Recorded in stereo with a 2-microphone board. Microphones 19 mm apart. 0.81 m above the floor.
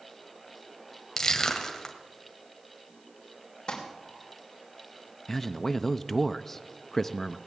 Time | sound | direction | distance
1.2 | crushing | 25° left (ahead or behind) | 2 m
3.7 | crumpling | 45° left (ahead or behind) | 3.5 m
5.3 | a man speaking | 10° left (ahead or behind) | 0.6 m